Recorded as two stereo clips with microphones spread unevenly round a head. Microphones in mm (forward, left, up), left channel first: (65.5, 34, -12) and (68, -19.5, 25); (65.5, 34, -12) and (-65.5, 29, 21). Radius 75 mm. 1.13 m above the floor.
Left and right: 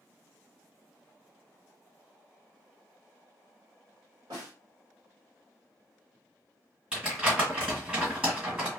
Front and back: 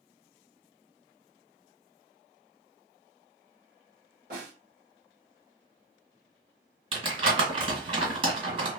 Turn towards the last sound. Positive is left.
turn(degrees=-140)